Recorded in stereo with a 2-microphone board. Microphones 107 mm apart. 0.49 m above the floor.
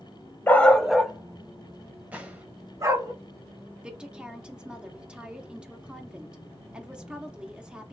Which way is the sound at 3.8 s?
10° right (ahead or behind).